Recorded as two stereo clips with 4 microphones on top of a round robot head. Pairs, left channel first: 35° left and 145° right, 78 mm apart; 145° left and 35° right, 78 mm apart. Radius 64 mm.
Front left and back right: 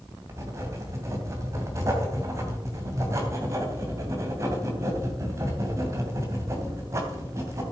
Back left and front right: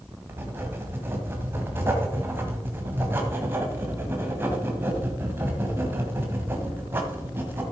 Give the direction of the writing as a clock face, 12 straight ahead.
3 o'clock.